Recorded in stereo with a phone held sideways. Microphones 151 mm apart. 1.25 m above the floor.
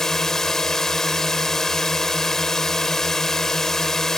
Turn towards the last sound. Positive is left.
turn(degrees=0)  # may be behind; listen again after turning